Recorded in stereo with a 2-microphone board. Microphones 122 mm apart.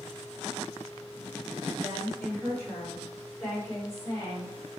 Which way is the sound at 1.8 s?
15° left (ahead or behind).